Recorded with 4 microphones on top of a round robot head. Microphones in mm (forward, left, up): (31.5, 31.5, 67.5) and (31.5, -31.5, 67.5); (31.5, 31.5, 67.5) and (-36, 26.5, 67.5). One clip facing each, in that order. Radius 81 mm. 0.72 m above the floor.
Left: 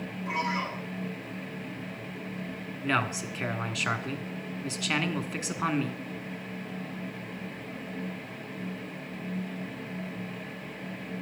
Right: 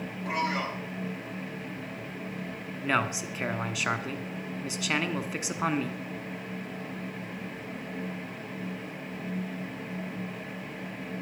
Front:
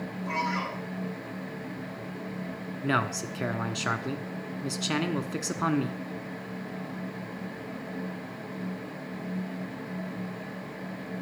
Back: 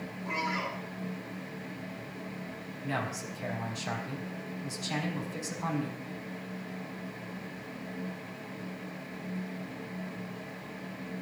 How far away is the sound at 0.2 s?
About 5 m.